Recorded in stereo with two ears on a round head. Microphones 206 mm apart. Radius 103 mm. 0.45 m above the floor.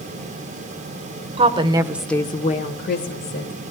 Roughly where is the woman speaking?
Right.